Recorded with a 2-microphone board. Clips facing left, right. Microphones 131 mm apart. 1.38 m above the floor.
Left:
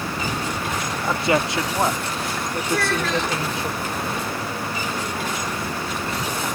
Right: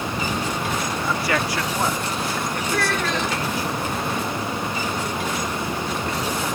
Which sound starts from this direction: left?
A man speaking, at 1.0 s.